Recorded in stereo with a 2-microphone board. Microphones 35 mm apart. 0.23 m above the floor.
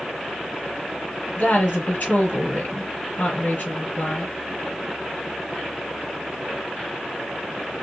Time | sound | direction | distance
1.4 | a woman speaking | 50° left (ahead or behind) | 4 m